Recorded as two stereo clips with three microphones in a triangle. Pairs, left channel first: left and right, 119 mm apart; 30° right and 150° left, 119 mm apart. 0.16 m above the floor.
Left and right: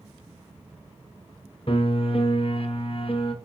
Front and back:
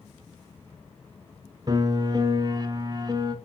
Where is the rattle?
No rattle in this recording.